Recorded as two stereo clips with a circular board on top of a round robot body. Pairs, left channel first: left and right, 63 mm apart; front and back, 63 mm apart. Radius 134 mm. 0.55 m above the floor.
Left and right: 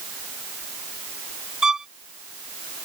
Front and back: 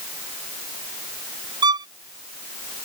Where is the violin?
175° right.